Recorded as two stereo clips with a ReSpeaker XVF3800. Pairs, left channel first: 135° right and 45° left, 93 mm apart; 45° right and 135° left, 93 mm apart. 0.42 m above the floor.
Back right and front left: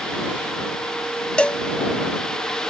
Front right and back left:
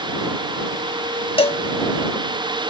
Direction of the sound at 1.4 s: 55° right.